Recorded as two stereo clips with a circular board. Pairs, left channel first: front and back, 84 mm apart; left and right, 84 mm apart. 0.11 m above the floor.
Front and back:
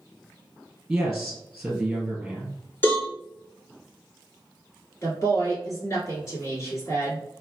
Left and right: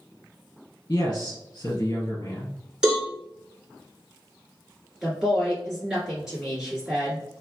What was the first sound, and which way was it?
A man speaking, 110° left.